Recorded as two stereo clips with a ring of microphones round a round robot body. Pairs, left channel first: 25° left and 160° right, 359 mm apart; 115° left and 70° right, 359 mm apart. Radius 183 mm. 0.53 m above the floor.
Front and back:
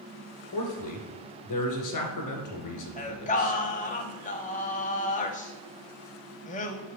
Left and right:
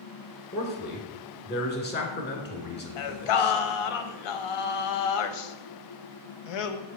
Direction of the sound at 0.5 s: 55° left.